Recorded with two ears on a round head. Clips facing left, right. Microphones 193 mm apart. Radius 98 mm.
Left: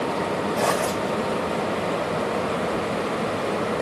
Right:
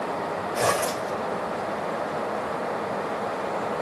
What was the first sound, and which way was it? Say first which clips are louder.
A zipper: right 1 dB; 40° right (ahead or behind).